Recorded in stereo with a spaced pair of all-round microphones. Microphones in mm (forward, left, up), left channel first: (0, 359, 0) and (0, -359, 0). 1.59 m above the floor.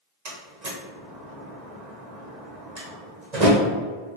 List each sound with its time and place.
0.2 s a door slam: 65° right (ahead or behind), 1.3 m